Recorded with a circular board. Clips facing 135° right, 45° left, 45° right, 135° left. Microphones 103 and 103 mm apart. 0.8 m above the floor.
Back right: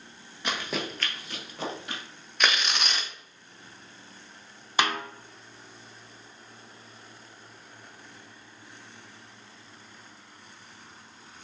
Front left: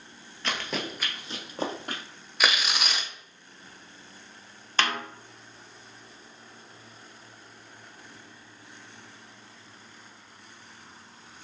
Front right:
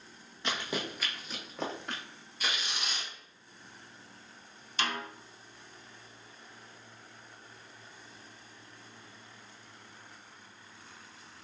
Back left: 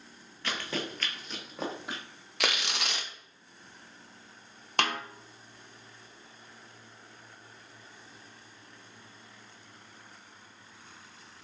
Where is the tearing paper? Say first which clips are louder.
Even, back left 4 dB; 130° left, 0.5 m.